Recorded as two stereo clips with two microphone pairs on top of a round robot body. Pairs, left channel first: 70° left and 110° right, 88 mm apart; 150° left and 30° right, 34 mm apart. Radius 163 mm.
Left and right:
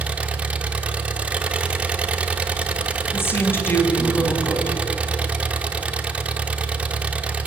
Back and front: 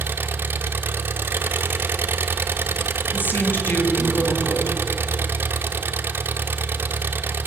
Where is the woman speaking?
135° left, 4 m.